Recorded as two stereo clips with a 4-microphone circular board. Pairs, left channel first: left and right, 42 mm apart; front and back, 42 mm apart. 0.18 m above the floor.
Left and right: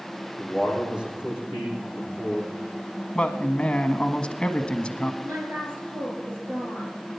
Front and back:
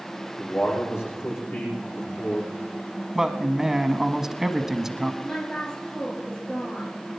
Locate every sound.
0.4 s a man speaking: 25° right, 10 m
3.1 s a man speaking: 110° left, 1.1 m
5.2 s a woman speaking: 70° right, 4 m